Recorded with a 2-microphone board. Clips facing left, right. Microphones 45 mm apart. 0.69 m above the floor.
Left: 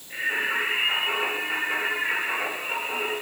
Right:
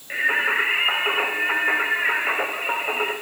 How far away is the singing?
About 3.5 m.